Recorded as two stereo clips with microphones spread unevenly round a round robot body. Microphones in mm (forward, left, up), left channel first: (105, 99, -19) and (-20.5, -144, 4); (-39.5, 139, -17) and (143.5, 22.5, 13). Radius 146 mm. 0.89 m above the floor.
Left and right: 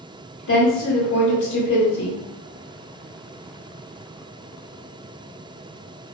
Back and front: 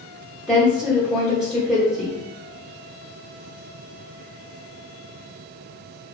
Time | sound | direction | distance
0.5 | a woman speaking | 65° left | 1.0 m